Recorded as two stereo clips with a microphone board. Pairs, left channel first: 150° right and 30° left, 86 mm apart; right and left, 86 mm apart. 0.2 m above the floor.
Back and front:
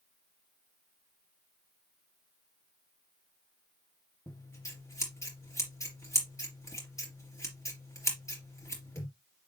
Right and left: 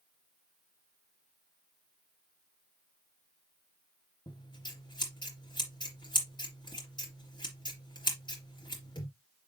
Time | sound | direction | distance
4.3 | scissors | 100° right | 3.5 m